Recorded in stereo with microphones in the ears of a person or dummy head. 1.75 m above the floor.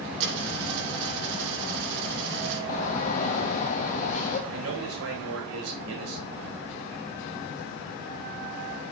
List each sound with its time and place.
0.2 s a dropped coin: 65° right (ahead or behind), 5.5 m
2.7 s a shout: 40° left (ahead or behind), 0.8 m
4.5 s a man speaking: 70° right (ahead or behind), 4 m